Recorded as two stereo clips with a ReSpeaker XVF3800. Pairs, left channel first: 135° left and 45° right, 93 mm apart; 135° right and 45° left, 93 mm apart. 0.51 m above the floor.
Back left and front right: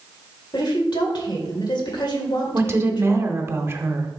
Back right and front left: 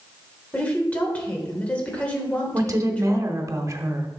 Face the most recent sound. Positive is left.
turn(degrees=5)